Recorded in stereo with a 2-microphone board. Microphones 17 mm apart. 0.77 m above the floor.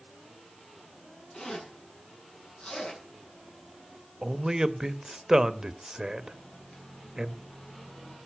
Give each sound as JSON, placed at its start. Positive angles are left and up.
{"t": 1.3, "sound": "a zipper", "side_deg": 85, "distance_m": 8.0}
{"t": 4.2, "sound": "a man speaking", "side_deg": -30, "distance_m": 1.0}
{"t": 6.3, "sound": "a microwave", "side_deg": 85, "distance_m": 4.0}